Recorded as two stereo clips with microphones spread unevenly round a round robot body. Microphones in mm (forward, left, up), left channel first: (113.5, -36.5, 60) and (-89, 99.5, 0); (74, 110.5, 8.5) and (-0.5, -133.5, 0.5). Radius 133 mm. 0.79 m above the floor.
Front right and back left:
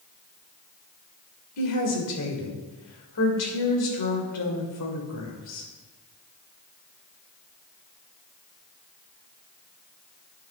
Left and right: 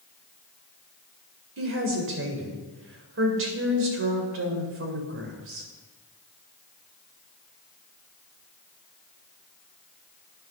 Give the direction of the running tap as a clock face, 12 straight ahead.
I don't hear a running tap.